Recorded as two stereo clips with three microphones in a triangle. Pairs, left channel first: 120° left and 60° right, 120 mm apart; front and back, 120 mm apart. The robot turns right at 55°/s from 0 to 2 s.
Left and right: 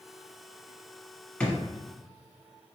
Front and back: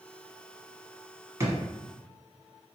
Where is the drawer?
175° right, 0.9 m; by 1.6 s 170° right, 0.9 m.